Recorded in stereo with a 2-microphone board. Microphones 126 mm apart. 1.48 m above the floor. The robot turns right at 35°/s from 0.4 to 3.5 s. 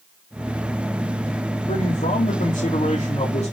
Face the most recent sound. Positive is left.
turn(degrees=130)